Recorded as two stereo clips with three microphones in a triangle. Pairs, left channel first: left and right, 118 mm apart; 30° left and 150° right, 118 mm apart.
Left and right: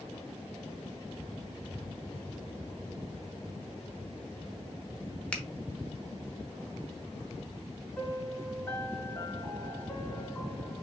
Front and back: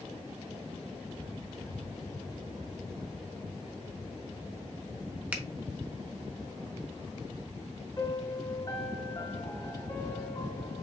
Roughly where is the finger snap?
Behind left.